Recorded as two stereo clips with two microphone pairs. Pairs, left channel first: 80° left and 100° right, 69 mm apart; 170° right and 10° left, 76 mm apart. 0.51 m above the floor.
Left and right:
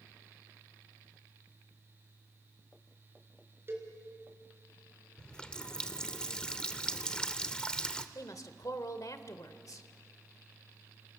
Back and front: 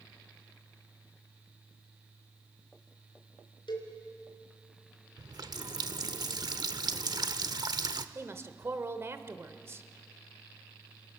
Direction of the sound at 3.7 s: 155° right.